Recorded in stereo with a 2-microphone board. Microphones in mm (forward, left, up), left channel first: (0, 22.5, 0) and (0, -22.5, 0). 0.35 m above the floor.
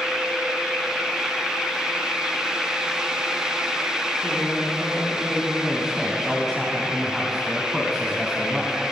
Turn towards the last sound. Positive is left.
turn(degrees=-10)  # may be behind; listen again after turning